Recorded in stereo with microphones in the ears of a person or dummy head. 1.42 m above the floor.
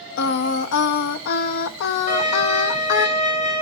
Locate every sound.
0.2 s singing: 60° left (ahead or behind), 0.6 m
2.1 s a violin: 40° left (ahead or behind), 5 m